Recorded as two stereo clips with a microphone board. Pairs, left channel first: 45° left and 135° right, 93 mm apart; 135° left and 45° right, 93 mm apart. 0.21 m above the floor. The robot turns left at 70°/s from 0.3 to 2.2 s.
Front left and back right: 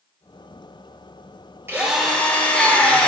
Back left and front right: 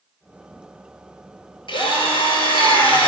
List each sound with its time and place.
1.7 s a drill: 160° left, 3.5 m; by 3.1 s 125° left, 3.5 m